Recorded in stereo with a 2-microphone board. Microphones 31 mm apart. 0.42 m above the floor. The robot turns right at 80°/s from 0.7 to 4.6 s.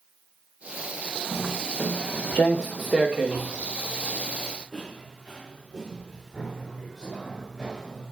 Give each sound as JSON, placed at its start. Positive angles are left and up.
{"t": 1.3, "sound": "footsteps", "side_deg": 30, "distance_m": 2.0}